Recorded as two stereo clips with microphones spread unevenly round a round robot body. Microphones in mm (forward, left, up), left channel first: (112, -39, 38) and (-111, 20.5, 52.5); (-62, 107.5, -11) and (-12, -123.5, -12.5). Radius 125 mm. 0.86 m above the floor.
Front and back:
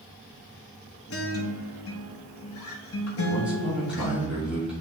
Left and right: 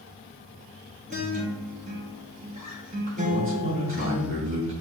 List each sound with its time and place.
1.1 s a guitar: 15° right, 1.7 m
3.3 s a man speaking: 110° right, 2.5 m